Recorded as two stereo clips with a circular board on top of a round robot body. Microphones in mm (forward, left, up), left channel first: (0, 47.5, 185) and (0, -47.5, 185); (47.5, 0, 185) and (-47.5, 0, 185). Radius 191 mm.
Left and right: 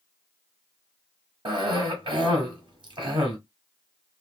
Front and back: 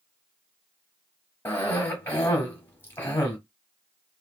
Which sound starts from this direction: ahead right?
A cough, at 1.4 s.